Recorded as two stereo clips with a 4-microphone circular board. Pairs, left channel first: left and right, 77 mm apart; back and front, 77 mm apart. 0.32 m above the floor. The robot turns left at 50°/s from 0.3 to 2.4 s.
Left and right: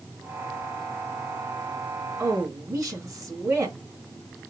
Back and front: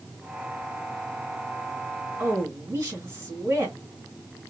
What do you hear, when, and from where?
2.2 s a woman speaking: 40° right, 2 m; by 3.8 s 50° right, 2 m